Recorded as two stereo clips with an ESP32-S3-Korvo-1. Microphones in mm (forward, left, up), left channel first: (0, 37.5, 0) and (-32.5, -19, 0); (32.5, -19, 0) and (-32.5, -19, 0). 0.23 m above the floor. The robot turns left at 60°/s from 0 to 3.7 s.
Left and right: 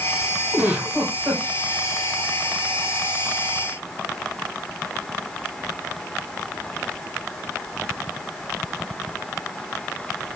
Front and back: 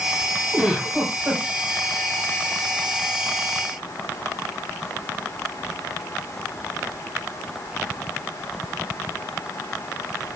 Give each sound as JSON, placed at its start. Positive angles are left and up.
{"t": 0.5, "sound": "a giggle", "azimuth_deg": -100, "distance_m": 1.6}